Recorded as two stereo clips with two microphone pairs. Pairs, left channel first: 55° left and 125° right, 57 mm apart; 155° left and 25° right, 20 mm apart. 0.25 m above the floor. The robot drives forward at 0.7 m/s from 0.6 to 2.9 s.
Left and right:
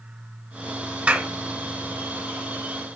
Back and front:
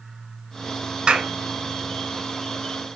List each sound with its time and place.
1.1 s a clap: 60° right, 2 m